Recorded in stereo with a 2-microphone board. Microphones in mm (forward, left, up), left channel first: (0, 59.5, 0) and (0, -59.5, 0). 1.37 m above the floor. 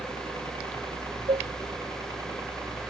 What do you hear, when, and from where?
0.0 s a helicopter: 40° right (ahead or behind); by 2.9 s 20° right (ahead or behind)
1.3 s dishes clattering: 45° right (ahead or behind)